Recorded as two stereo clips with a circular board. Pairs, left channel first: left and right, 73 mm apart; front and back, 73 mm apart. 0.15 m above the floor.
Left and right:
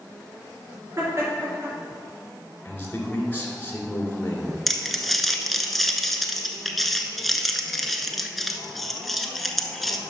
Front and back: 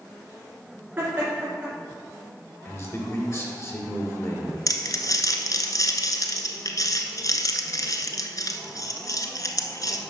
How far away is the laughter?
About 2.5 m.